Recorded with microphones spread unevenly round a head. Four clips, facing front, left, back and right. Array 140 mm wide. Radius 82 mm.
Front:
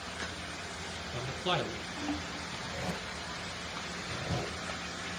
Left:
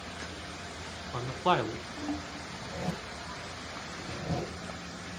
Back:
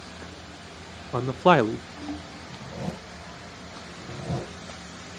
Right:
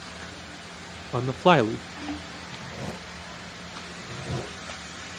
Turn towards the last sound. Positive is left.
turn(degrees=180)